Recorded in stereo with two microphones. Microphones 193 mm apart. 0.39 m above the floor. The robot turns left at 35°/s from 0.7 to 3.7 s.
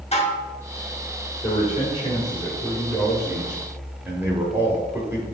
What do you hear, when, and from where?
0.1 s dishes clattering: 35° left (ahead or behind), 0.9 m
1.4 s a man speaking: 60° left, 1.2 m; by 5.2 s 20° right, 1.2 m